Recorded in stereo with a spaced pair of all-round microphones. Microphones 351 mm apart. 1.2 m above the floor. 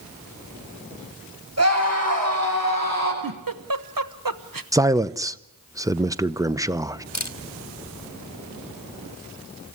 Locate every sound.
1.6 s a scream: 45° right (ahead or behind), 8.5 m; by 3.1 s 50° right (ahead or behind), 10 m
3.2 s a giggle: 70° right (ahead or behind), 1.1 m
4.7 s a man speaking: 10° right (ahead or behind), 0.7 m
7.1 s a camera shutter: 50° left (ahead or behind), 1.5 m